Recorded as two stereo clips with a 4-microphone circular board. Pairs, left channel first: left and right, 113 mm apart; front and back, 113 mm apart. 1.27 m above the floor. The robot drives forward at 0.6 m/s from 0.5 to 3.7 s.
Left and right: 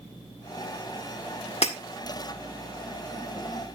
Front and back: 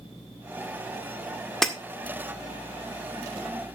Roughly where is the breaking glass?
Left.